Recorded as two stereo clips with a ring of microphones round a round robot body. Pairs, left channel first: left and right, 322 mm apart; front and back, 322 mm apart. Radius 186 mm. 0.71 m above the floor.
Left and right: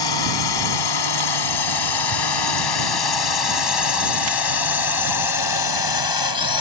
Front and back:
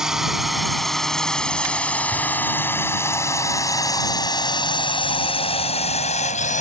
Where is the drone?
90° left; by 6.6 s 70° left.